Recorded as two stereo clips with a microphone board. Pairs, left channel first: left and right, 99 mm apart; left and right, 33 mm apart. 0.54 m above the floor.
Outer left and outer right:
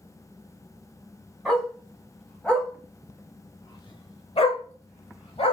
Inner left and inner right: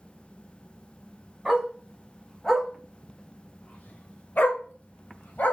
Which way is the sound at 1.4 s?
Centre (ahead or behind).